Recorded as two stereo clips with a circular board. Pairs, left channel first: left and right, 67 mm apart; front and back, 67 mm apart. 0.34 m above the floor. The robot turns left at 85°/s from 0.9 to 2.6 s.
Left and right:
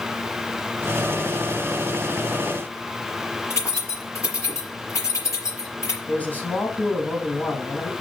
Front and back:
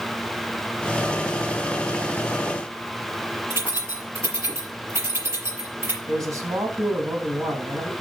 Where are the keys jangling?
135° left, 5 m.